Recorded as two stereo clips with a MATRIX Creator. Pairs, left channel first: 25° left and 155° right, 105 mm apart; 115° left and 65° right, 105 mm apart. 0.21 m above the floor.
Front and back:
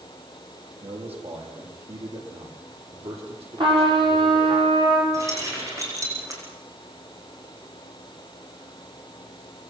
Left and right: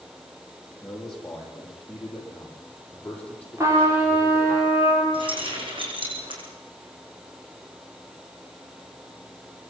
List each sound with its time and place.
0.8 s a man speaking: 160° right, 8.5 m; by 4.6 s 175° right, 7 m
3.6 s a trumpet: 130° right, 7 m
5.1 s keys jangling: 100° right, 6.5 m